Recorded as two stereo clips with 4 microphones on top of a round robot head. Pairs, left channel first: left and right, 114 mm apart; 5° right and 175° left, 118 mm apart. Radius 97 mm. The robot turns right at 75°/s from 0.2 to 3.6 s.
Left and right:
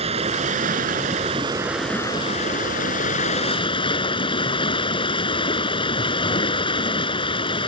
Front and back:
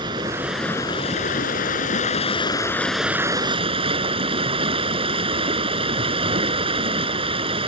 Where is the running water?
120° right; by 7.7 s 135° left.